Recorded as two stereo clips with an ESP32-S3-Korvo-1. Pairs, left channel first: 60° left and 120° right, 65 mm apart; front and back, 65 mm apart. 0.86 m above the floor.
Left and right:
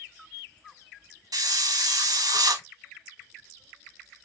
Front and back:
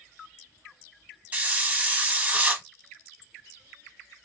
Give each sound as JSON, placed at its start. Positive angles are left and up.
{"t": 1.3, "sound": "a hiss", "azimuth_deg": -110, "distance_m": 1.1}